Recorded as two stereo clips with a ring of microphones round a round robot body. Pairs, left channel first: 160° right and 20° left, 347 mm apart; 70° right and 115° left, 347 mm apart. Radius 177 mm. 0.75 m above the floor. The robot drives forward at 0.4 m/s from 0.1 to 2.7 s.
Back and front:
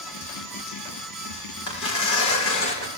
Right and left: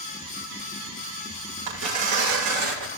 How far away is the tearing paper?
About 7 m.